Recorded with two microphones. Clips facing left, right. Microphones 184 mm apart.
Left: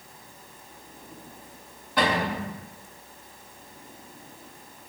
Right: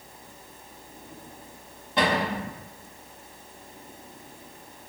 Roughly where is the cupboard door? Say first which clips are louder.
Even; right.